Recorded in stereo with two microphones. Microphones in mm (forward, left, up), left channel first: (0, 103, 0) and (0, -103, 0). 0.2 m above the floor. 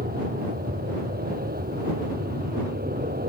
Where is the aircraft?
50° right (ahead or behind).